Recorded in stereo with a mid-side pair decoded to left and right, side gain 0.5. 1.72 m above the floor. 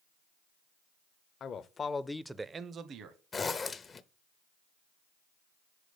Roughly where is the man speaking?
Ahead left.